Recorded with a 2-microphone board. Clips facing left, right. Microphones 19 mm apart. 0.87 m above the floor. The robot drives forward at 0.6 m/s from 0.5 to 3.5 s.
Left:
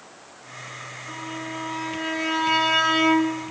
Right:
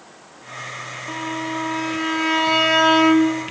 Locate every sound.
1.1 s a violin: 50° right (ahead or behind), 1.3 m; by 3.4 s 30° right (ahead or behind), 2 m